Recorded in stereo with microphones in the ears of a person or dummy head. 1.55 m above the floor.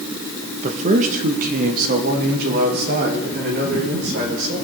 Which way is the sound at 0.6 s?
35° right (ahead or behind).